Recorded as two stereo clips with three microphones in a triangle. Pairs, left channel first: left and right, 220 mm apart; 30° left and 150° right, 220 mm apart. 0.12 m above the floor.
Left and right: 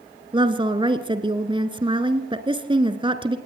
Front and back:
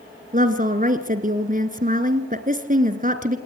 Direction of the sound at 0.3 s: 145° right.